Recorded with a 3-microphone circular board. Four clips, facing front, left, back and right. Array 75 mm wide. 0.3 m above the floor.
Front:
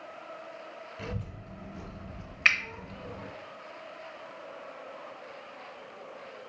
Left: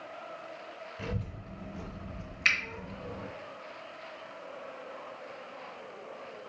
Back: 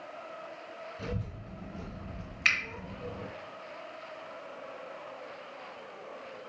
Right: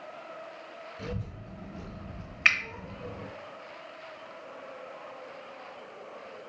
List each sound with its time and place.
1.0 s a child speaking: 70° left, 1.3 m; by 3.3 s 140° right, 1.2 m
2.5 s a finger snap: 50° right, 0.7 m